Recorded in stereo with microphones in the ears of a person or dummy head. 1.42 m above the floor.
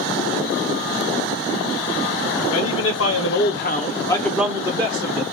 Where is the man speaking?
75° left (ahead or behind), 1.0 m; by 5.2 s 30° right (ahead or behind), 0.8 m.